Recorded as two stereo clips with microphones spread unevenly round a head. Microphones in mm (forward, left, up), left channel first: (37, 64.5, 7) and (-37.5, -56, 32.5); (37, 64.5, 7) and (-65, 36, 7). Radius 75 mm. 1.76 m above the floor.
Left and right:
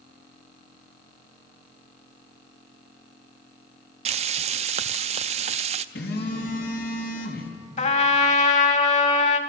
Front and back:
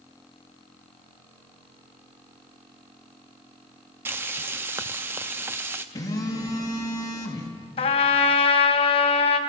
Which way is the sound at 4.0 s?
90° right.